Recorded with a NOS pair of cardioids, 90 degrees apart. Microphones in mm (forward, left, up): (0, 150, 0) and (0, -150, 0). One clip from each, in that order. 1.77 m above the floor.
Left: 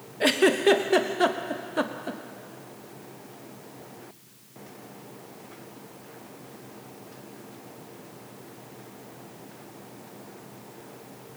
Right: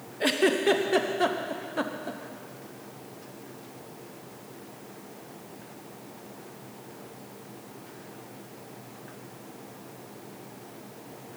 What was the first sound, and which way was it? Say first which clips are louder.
A giggle: left 3 dB; 20° left.